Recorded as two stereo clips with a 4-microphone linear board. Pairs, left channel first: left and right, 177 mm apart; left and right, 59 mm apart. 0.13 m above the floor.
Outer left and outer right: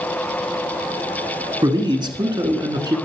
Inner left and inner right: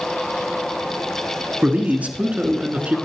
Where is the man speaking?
25° right (ahead or behind), 1.3 m.